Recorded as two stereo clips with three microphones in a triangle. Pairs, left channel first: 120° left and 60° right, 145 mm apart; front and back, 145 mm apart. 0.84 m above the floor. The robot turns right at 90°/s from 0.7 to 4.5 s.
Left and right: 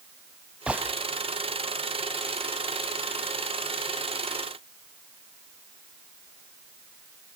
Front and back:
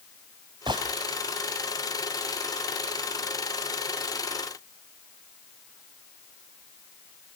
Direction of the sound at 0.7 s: 140° right.